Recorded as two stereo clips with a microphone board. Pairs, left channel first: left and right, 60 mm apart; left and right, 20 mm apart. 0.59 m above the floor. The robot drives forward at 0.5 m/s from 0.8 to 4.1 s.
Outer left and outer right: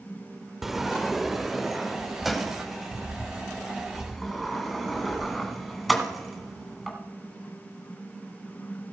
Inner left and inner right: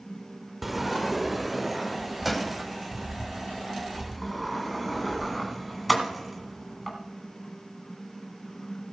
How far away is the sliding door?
About 0.6 m.